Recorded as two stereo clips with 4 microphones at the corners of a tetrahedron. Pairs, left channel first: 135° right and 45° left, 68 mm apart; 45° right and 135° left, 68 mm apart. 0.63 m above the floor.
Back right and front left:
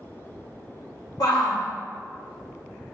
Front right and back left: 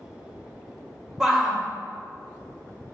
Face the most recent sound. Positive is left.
turn(degrees=-145)